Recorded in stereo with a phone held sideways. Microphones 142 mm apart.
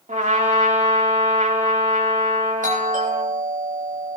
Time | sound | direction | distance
0.1 | a trumpet | 70° right (ahead or behind) | 3 m
2.6 | a doorbell | 75° right (ahead or behind) | 8 m